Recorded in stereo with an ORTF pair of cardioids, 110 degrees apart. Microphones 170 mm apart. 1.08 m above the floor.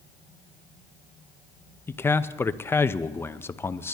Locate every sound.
1.9 s a man speaking: 15° left, 0.6 m